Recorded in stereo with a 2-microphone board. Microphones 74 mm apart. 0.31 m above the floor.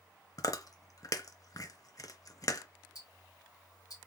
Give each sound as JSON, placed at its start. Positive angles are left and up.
{"t": 0.4, "sound": "chewing", "side_deg": 50, "distance_m": 0.6}
{"t": 3.0, "sound": "ticking", "side_deg": 55, "distance_m": 2.0}